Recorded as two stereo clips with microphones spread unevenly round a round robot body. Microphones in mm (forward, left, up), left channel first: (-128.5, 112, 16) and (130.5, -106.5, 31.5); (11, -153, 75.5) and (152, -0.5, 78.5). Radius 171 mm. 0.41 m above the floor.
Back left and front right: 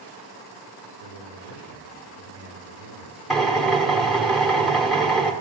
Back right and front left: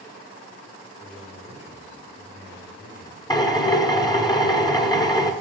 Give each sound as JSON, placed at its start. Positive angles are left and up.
{"t": 1.0, "sound": "a man speaking", "azimuth_deg": 155, "distance_m": 5.5}
{"t": 3.3, "sound": "a drill", "azimuth_deg": -140, "distance_m": 1.3}